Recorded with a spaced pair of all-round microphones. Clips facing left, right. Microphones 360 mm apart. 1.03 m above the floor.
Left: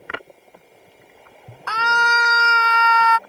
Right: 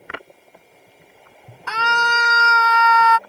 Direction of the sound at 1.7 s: 35° right (ahead or behind).